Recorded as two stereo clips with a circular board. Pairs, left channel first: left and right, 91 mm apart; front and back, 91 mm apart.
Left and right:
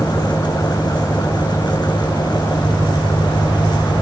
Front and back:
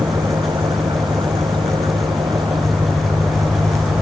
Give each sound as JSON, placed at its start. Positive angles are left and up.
{"t": 0.0, "sound": "an engine running", "azimuth_deg": 150}